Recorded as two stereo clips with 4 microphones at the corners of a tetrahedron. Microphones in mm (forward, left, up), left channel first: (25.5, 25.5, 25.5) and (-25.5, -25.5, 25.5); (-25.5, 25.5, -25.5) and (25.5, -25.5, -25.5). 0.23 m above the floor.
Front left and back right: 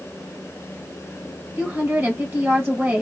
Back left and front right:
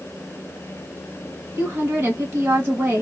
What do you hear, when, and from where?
1.6 s a woman speaking: 90° right, 1.3 m